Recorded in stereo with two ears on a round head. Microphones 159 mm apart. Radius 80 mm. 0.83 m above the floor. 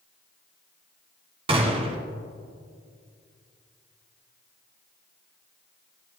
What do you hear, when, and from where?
1.5 s a gunshot: 30° right (ahead or behind), 1.7 m